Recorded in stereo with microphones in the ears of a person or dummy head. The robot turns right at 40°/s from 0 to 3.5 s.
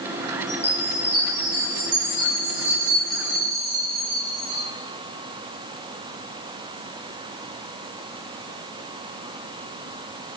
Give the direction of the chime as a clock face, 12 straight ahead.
7 o'clock.